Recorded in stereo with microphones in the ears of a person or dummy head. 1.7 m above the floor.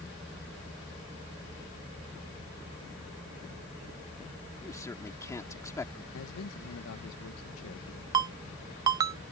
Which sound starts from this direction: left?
A man speaking, at 6.1 s.